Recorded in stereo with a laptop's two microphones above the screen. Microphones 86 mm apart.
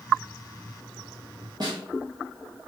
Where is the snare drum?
55° right (ahead or behind), 1.2 m.